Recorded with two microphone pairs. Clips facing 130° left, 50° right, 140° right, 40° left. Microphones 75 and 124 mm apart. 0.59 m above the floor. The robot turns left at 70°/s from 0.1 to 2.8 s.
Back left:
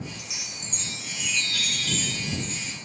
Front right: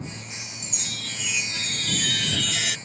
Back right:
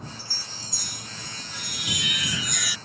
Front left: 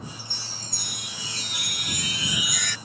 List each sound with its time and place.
0.2 s a chime: 115° left; by 2.8 s 65° right